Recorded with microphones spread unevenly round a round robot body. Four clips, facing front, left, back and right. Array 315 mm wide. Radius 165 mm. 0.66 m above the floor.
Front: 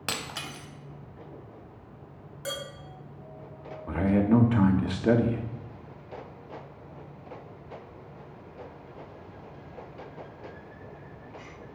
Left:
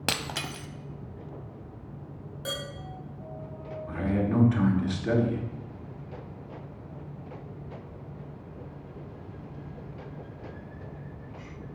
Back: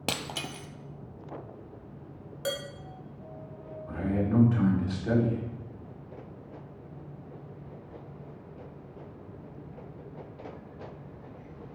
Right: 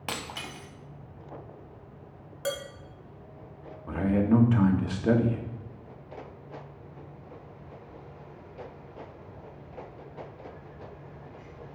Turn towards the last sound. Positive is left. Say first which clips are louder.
# right 4 dB, front 6 dB
turn(degrees=-20)